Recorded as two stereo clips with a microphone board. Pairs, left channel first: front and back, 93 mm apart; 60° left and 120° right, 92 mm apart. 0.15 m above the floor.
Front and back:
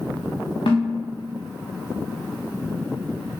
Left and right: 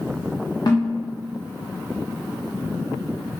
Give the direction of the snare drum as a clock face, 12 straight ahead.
12 o'clock.